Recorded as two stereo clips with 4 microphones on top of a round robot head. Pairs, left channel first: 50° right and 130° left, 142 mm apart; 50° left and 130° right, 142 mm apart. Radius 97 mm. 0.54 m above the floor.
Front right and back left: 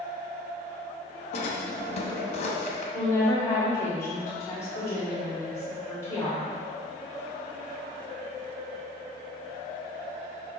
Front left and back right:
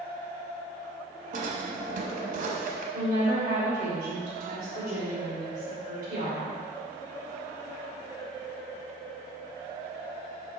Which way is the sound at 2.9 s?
115° right.